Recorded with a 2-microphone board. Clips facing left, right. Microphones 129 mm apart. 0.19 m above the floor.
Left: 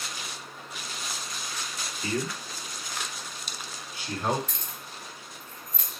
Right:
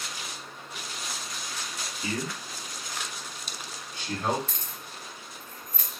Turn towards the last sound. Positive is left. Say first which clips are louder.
# even
turn(degrees=-40)  # may be behind; listen again after turning